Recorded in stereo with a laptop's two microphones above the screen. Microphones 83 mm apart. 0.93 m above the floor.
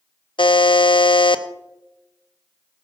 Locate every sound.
0.4 s a buzzer: 85° left, 0.6 m